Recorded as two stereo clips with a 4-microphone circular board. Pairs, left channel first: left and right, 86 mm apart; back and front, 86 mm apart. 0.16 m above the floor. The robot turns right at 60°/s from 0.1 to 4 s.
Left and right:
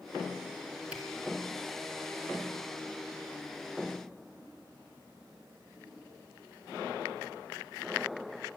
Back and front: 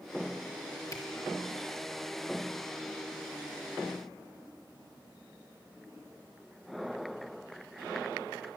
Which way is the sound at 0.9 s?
160° right.